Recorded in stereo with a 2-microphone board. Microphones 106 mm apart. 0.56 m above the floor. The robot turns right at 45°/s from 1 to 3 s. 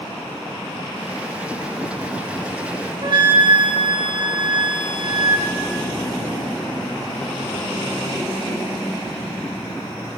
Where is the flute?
45° right (ahead or behind), 0.6 m.